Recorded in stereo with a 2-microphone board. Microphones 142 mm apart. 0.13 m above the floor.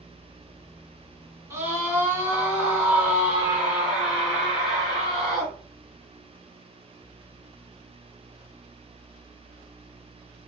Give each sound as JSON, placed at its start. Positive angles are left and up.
{"t": 1.5, "sound": "a scream", "side_deg": -20, "distance_m": 1.7}